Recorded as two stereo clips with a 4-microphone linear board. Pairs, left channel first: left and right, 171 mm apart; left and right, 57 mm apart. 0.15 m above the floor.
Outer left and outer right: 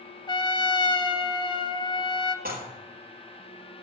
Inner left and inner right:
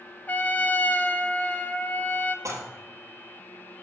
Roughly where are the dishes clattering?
Right.